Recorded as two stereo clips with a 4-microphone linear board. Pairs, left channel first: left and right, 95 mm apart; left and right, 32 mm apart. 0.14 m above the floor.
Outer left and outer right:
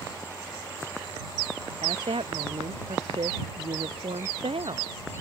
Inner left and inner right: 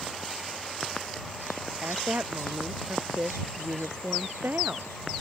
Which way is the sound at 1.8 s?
85° right.